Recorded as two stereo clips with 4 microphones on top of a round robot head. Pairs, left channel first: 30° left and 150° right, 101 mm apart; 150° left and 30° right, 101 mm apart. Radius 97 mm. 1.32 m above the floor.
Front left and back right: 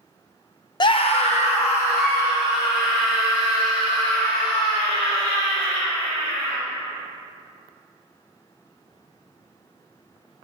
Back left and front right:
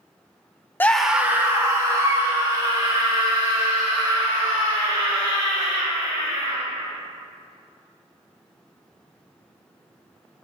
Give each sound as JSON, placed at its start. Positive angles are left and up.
{"t": 0.8, "sound": "a scream", "azimuth_deg": 75, "distance_m": 0.6}